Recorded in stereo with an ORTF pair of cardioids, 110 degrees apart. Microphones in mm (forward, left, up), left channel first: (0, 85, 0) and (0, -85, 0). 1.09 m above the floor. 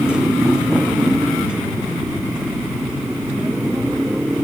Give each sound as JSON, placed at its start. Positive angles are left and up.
{"t": 0.0, "sound": "a motorcycle", "azimuth_deg": -5}